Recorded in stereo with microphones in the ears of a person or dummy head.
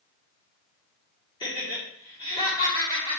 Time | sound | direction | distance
1.4 | laughter | 25° left (ahead or behind) | 3 m